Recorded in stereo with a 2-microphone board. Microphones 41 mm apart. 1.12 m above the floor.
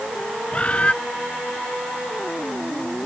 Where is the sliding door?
I don't hear a sliding door.